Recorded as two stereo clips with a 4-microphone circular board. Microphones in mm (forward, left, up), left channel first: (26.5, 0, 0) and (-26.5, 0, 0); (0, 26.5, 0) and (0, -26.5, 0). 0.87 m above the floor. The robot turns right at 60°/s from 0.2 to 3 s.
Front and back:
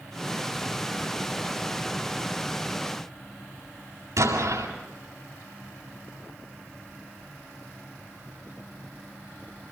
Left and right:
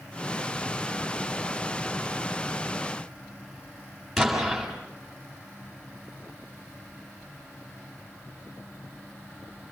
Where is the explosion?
175° left, 7.5 m.